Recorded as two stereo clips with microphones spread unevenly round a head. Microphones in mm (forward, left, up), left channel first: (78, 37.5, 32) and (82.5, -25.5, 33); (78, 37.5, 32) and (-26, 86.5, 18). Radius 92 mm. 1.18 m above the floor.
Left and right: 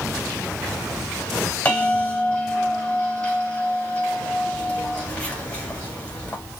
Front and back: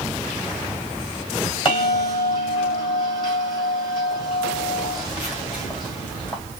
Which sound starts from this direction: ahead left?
A bell, at 1.6 s.